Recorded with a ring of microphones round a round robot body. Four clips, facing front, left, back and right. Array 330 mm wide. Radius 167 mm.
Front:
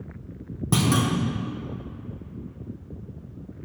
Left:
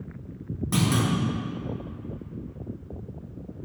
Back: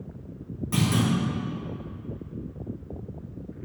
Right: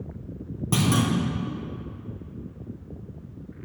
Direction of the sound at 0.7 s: 25° right.